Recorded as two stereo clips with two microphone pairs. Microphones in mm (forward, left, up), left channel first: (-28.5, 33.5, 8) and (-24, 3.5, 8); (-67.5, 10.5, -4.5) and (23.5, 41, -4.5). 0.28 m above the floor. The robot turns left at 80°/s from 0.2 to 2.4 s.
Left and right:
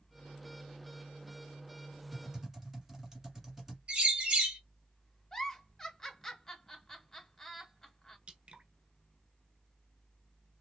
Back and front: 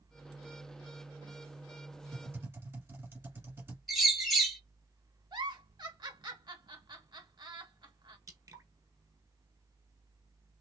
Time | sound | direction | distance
2.1 | typing on a keyboard | 10° left | 1.5 m
3.9 | a bird | 70° right | 1.6 m
5.3 | a giggle | 30° left | 0.7 m
8.3 | dripping | 35° right | 0.5 m